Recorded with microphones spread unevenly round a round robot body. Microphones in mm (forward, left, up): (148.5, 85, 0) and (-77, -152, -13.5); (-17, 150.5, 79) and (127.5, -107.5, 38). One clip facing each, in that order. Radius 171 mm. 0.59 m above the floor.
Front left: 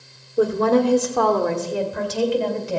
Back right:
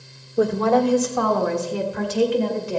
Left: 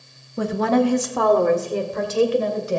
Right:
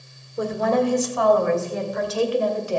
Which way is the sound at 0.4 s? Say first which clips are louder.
Front left 1 dB, left 2 dB; 140° left.